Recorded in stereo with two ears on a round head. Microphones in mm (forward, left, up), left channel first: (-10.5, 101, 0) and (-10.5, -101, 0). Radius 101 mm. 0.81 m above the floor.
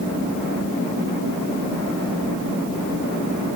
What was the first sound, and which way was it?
Only background noise.